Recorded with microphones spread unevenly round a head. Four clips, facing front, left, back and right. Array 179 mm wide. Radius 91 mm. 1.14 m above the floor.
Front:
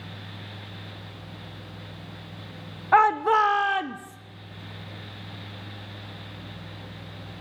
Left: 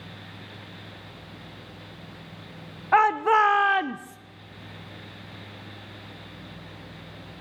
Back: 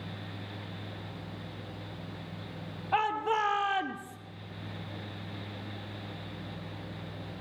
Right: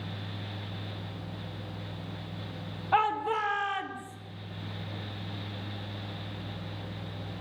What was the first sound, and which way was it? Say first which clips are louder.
A shout: left 8 dB, front 10 dB; 20° left.